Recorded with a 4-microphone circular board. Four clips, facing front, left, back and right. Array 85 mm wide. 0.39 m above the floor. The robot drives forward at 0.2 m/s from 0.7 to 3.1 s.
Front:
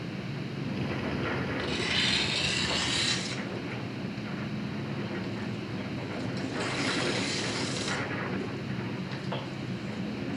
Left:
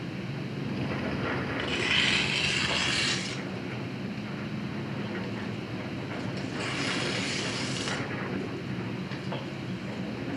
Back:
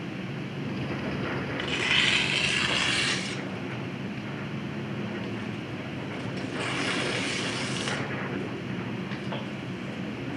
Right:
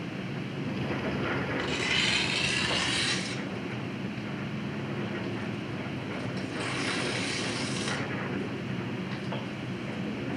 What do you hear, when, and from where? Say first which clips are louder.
1.6 s tearing paper: left 1 dB, back 3 dB; 165° left, 0.6 m; by 10.4 s 170° left, 0.9 m